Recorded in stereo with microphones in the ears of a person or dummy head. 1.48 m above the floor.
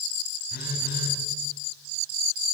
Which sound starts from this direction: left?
A phone buzzing, at 0.5 s.